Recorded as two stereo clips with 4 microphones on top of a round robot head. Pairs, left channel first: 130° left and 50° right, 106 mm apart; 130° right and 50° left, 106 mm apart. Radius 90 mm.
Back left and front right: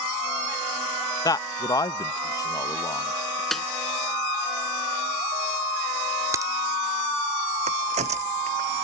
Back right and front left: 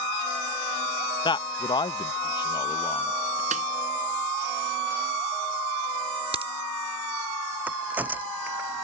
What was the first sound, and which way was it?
A man speaking, 175° right.